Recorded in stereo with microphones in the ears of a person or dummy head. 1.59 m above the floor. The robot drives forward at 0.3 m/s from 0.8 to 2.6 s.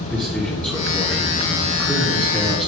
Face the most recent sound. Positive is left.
turn(degrees=10)  # may be behind; listen again after turning